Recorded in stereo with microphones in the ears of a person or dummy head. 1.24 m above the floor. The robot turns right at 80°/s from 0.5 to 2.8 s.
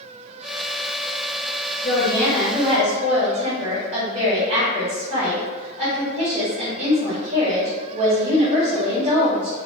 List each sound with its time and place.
1.8 s a woman speaking: 135° left, 1.2 m; by 9.6 s 150° right, 1.2 m